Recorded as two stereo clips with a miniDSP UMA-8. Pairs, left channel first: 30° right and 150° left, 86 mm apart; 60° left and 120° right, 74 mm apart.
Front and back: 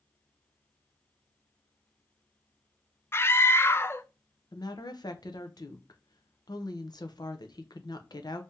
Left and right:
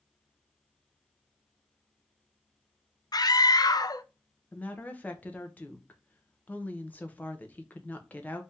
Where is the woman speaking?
5° right, 0.7 m.